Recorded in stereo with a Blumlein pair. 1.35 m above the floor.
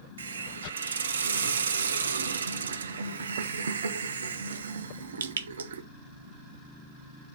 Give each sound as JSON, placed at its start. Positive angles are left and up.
{"t": 0.2, "sound": "a hiss", "azimuth_deg": -70, "distance_m": 0.6}